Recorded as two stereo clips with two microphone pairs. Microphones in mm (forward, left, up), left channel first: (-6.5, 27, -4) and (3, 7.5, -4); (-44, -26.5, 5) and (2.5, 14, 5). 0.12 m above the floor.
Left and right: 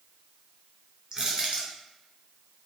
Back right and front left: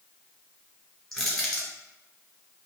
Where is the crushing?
65° right, 1.2 m.